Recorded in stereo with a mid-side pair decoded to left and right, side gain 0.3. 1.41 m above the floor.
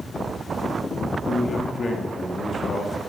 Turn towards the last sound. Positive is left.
turn(degrees=60)